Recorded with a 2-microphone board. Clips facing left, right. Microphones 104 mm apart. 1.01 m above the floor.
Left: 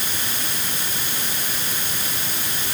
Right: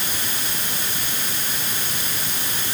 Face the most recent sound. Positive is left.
No sound to turn to.